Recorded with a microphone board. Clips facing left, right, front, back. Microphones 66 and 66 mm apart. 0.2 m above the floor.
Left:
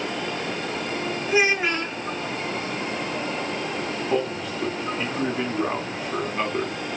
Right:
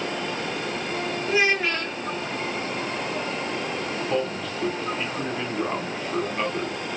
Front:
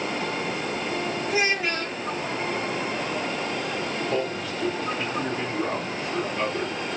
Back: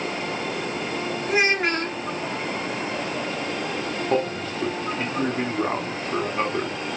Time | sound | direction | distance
1.3 | a child speaking | 160° left | 1.6 m
4.1 | a man speaking | 165° left | 1.6 m